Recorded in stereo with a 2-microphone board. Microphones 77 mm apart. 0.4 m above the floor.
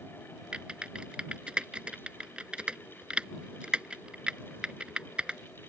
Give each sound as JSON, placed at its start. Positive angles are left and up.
{"t": 0.5, "sound": "typing on a keyboard", "side_deg": -15}